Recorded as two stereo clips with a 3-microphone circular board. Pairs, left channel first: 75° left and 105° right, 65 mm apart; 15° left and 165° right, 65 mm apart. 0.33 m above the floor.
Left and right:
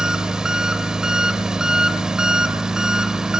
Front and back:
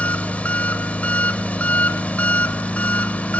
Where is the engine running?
35° right, 1.0 m.